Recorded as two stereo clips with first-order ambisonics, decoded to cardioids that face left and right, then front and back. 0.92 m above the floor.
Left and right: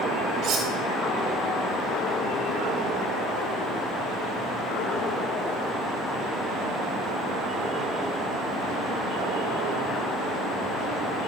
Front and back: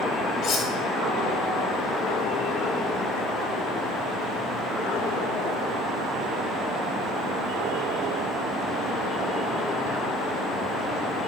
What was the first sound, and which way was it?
Cutlery clinking, 40° right.